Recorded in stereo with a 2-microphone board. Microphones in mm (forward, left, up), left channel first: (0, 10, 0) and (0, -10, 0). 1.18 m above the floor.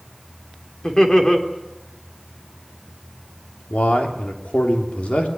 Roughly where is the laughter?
Left.